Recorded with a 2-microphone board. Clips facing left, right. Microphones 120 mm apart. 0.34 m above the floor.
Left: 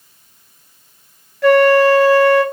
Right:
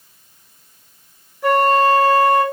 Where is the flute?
80° left, 1.1 m.